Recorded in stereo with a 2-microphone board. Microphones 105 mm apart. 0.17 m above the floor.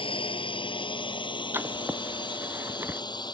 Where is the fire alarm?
No fire alarm in this recording.